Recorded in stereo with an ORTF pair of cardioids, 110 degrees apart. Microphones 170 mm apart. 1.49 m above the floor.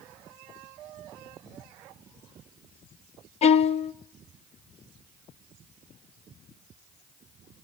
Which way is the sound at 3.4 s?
40° left.